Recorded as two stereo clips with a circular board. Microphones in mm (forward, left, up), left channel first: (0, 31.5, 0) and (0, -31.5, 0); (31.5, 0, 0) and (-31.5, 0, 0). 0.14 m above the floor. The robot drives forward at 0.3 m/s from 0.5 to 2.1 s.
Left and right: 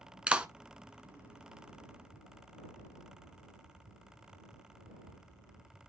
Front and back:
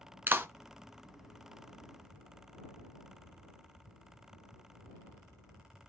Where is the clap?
155° right, 1.0 m.